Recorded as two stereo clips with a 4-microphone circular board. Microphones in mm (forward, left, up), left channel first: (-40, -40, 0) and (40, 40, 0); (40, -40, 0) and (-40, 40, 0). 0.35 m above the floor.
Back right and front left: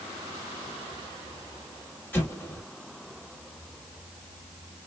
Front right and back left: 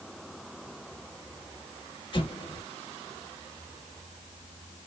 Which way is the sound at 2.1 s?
70° right.